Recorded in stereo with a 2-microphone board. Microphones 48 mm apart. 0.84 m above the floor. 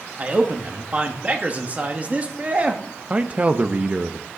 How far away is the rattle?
No rattle in this recording.